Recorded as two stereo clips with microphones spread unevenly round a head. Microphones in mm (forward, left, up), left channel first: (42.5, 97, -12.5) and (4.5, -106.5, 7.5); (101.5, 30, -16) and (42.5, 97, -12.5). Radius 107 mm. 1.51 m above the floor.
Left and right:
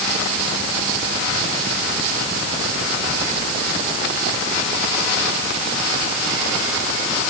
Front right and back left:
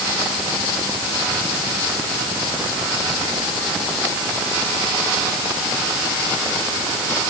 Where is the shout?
No shout in this recording.